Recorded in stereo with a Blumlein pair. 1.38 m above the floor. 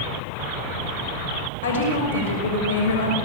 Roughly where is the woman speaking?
Ahead left.